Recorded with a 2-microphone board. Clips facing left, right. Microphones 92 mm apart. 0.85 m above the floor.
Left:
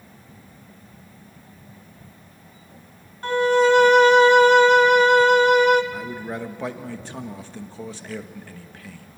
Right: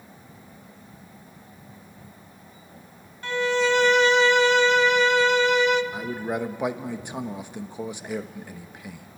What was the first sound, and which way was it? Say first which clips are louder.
A violin: left 6 dB; 45° left (ahead or behind).